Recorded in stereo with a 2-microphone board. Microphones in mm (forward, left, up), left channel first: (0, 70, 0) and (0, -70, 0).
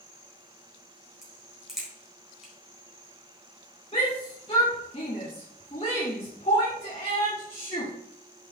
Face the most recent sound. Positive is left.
turn(degrees=40)  # may be behind; listen again after turning